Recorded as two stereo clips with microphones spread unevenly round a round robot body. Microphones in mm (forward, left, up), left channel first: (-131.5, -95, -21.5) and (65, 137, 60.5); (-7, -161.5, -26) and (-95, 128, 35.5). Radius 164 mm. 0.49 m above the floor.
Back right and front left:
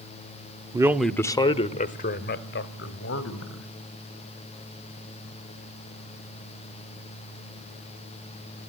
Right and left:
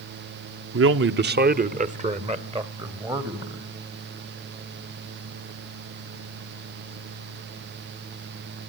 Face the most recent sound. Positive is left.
turn(degrees=-175)